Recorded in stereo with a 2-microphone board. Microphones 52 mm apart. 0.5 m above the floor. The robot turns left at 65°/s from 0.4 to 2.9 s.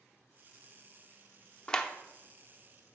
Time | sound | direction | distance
1.7 | a clap | 20° left (ahead or behind) | 0.7 m